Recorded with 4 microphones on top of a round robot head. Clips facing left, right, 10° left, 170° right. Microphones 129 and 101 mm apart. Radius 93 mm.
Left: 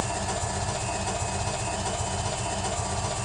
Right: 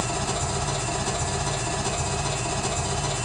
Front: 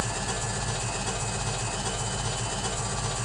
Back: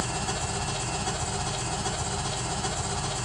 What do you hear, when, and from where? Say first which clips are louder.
0.0 s an engine running: right 2 dB, back 1 dB; 120° right, 1.6 m